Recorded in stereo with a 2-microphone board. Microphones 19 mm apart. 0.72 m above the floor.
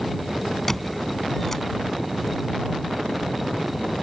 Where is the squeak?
15° left (ahead or behind).